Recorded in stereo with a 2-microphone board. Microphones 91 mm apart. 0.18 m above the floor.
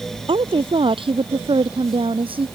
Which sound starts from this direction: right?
A woman speaking, at 0.3 s.